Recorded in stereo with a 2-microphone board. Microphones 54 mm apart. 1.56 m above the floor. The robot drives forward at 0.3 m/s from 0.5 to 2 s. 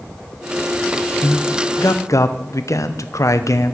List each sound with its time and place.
1.2 s a man speaking: 60° left (ahead or behind), 1.0 m; by 3.8 s 75° left (ahead or behind), 0.9 m